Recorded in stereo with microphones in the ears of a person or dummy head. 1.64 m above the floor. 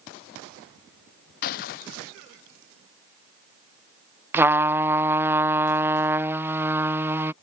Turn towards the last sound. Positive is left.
turn(degrees=-15)  # may be behind; listen again after turning